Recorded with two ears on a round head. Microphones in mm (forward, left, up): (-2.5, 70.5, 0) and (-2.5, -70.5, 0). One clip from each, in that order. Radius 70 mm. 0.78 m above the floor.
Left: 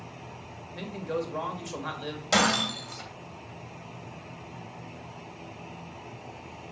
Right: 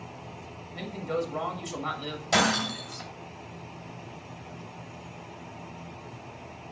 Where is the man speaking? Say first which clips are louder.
Right 1 dB; centre (ahead or behind), 1.6 m.